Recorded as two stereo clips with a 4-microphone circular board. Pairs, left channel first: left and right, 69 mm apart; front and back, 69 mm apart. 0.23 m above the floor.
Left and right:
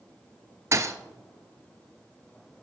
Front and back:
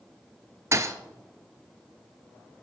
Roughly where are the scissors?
I don't hear scissors.